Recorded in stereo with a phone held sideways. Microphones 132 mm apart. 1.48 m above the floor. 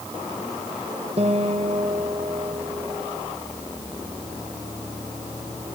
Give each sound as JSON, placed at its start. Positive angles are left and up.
{"t": 1.2, "sound": "a guitar", "side_deg": -50, "distance_m": 2.0}